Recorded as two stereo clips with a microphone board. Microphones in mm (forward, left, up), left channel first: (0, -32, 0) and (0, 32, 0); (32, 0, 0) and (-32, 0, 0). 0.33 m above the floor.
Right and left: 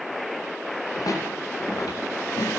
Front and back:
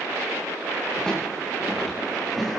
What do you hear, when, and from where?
1.0 s footsteps: 80° right, 9.5 m; by 2.6 s 95° right, 10 m